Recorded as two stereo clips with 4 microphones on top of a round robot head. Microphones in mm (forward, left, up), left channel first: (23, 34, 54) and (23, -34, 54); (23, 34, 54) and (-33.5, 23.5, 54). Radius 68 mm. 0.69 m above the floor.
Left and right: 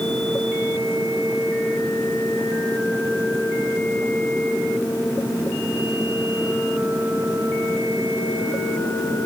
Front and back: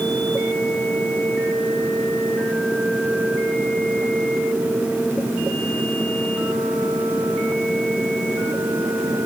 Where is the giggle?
I don't hear a giggle.